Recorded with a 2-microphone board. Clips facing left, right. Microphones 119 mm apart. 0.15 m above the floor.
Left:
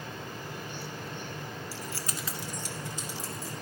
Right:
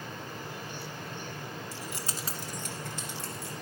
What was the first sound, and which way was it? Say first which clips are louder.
Keys jangling: left 1 dB; 5° left (ahead or behind).